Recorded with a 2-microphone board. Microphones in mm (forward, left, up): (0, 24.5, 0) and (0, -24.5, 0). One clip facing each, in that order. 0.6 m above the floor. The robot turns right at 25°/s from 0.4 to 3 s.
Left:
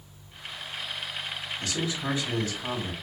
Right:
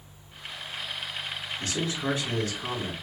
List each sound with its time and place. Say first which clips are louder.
1.6 s a man speaking: right 1 dB; 140° right, 3 m; by 2.9 s 105° right, 3 m